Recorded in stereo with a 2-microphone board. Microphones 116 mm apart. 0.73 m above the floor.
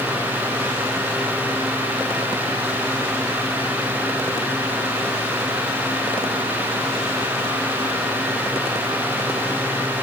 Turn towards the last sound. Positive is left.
No sound to turn to.